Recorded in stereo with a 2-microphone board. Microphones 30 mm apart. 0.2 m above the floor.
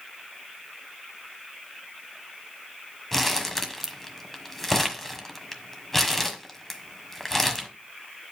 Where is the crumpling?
10° left (ahead or behind), 1.4 m.